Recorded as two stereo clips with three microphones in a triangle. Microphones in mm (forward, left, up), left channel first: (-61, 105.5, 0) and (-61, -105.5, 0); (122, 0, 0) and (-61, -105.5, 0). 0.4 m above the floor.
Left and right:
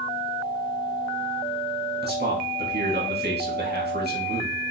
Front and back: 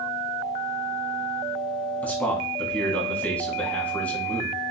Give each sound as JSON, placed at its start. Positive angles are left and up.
{"t": 2.0, "sound": "a man speaking", "azimuth_deg": -55, "distance_m": 2.5}